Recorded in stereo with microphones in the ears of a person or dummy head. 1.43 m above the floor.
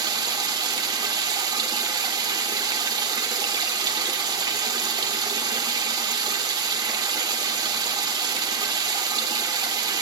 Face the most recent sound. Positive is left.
turn(degrees=-20)  # may be behind; listen again after turning